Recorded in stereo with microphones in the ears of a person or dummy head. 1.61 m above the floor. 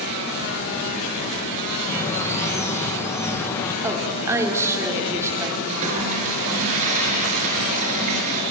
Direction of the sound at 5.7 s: 35° right (ahead or behind).